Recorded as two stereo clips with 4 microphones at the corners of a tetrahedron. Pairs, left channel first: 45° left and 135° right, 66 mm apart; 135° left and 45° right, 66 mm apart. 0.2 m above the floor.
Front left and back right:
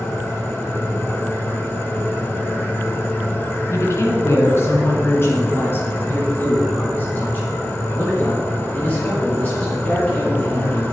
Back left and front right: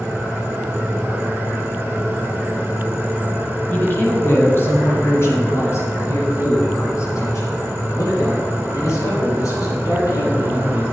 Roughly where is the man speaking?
Left.